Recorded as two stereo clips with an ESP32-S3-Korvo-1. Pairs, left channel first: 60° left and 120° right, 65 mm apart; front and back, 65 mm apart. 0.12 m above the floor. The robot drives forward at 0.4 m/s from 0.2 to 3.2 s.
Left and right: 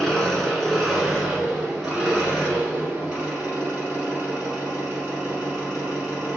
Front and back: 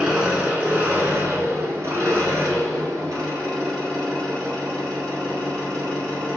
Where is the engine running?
130° left, 1.0 m; by 6.4 s 170° left, 1.7 m.